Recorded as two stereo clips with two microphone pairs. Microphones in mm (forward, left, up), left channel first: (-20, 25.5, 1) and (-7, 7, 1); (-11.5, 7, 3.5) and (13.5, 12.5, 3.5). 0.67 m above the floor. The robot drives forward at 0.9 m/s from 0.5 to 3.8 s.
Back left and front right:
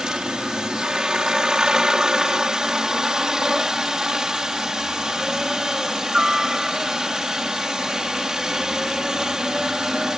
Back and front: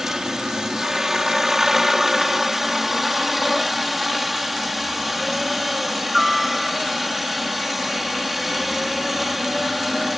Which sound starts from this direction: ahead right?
A helicopter, at 0.0 s.